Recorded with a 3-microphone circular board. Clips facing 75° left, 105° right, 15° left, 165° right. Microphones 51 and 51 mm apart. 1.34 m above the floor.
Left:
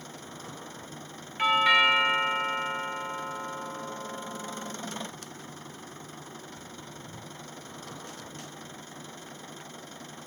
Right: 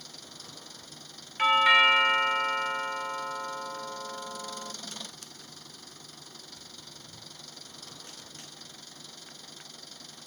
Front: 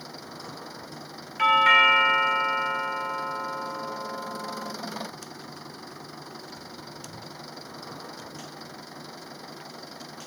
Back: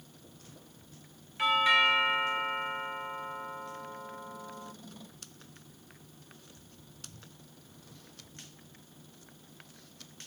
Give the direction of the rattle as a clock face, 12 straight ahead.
No rattle in this recording.